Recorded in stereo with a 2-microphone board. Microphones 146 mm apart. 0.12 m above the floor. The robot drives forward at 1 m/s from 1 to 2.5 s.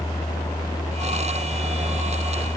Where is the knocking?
I don't hear knocking.